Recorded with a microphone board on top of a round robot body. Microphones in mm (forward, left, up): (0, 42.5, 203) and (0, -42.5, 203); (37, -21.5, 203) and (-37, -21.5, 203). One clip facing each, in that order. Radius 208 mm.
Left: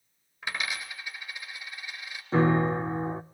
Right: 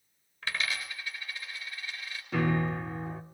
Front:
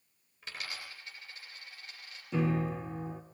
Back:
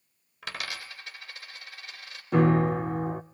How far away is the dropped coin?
About 3 m.